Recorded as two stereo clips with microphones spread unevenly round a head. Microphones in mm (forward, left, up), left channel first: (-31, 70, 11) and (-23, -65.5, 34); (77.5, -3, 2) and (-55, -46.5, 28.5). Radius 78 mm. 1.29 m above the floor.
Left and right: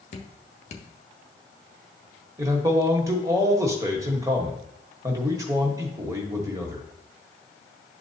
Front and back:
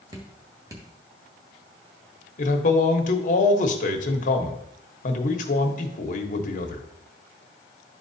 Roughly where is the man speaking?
Ahead.